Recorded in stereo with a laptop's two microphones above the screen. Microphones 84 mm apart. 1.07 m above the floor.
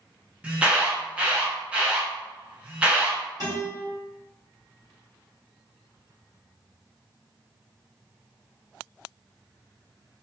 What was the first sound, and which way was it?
An alarm, 15° right (ahead or behind).